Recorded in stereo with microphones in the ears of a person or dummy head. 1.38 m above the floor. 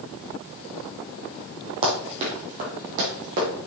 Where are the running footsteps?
25° right (ahead or behind), 2 m; by 3.5 s 40° right (ahead or behind), 3 m.